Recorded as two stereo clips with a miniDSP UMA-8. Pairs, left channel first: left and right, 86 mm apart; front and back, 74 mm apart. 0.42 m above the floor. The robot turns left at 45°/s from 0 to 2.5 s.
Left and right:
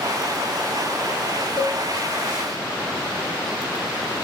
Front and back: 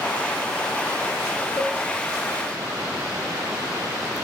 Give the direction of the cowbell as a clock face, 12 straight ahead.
7 o'clock.